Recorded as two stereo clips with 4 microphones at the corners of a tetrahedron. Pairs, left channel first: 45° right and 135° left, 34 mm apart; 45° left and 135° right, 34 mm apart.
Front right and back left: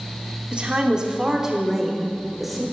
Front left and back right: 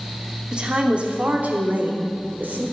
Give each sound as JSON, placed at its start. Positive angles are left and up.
{"t": 0.5, "sound": "a woman speaking", "azimuth_deg": 180, "distance_m": 0.9}